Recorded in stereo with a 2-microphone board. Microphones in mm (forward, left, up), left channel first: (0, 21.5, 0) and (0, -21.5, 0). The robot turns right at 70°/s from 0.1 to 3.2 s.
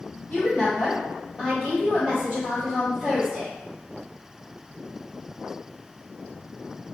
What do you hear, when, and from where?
0.3 s a woman speaking: 100° left, 1.4 m; by 3.5 s 55° right, 1.4 m